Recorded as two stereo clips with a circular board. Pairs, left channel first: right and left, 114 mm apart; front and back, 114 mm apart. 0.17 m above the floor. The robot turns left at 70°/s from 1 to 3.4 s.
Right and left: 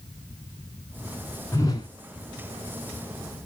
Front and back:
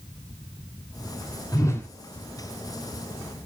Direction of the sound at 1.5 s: 40° right.